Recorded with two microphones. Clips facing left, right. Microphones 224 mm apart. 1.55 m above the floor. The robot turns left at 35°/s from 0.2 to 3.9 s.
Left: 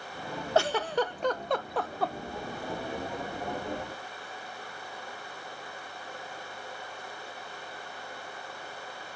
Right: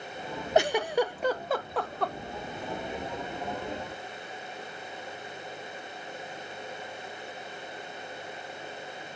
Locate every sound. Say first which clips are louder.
0.6 s a giggle: right 2 dB; 20° right (ahead or behind), 0.5 m; by 2.1 s 5° left (ahead or behind), 0.5 m